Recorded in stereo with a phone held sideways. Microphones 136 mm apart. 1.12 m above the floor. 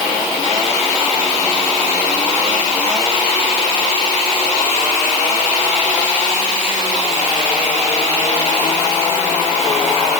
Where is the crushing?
No crushing in this recording.